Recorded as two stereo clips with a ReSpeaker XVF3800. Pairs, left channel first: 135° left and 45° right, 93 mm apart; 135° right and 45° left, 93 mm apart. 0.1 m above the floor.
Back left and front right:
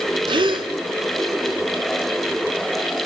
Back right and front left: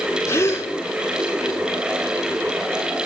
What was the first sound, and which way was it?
A gasp, 75° right.